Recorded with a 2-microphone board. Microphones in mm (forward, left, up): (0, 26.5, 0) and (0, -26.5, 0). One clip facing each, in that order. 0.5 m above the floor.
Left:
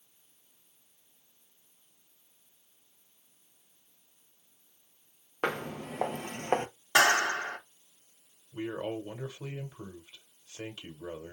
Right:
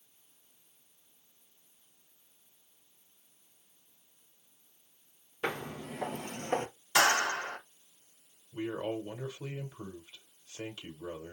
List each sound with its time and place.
5.4 s footsteps: 60° left (ahead or behind), 1.1 m; by 6.7 s 45° left (ahead or behind), 0.7 m
7.0 s a clap: 60° left (ahead or behind), 2.5 m
8.5 s a man speaking: 20° left (ahead or behind), 1.3 m